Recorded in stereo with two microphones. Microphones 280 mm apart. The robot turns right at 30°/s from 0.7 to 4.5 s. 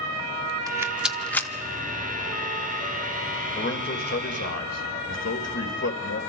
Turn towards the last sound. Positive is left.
turn(degrees=65)  # may be behind; listen again after turning